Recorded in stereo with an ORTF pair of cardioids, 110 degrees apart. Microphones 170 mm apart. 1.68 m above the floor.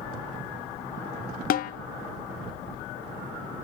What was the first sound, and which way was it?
A snare drum, 60° left.